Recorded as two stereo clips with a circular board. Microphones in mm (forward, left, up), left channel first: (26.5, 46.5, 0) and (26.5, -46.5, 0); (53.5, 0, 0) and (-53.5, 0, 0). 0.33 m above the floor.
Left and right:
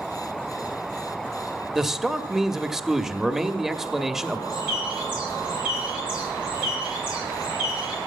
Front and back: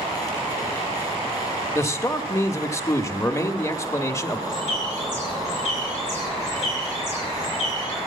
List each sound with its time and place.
1.8 s a man speaking: 5° right, 1.0 m
4.5 s a bird: 170° right, 8.5 m